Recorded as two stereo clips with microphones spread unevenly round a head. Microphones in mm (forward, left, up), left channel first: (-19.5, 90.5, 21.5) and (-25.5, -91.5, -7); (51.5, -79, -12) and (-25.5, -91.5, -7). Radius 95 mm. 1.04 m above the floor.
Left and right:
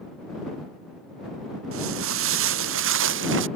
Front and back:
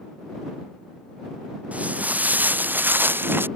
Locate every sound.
1.7 s footsteps: 100° right; by 3.5 s 110° right